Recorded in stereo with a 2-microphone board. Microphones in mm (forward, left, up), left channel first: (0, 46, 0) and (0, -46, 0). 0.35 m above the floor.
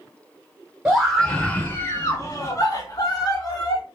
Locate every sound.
0.8 s a scream: 5° right (ahead or behind), 0.9 m; by 3.8 s 45° left (ahead or behind), 2 m